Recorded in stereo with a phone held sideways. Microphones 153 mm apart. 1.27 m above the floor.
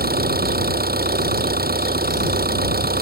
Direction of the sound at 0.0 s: 85° right.